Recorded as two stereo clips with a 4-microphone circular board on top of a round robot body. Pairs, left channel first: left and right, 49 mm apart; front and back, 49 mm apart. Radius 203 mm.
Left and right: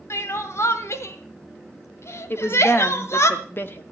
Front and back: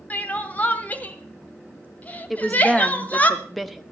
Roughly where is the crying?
Ahead left.